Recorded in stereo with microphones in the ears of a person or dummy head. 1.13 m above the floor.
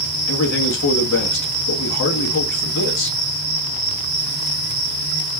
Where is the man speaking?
70° left (ahead or behind), 0.9 m.